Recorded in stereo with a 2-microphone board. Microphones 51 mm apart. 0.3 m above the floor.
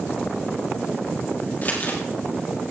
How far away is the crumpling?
About 5 m.